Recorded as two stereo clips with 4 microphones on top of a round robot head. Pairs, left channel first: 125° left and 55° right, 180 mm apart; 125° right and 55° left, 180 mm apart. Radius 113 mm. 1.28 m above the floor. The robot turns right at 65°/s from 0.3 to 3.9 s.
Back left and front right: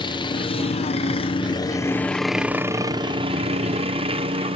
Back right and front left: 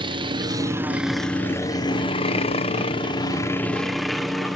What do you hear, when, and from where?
0.0 s a helicopter: 90° left; by 4.6 s 35° right